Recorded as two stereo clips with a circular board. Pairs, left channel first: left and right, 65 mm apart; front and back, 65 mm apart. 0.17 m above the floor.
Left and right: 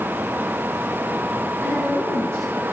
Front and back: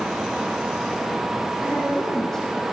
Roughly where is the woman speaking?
Right.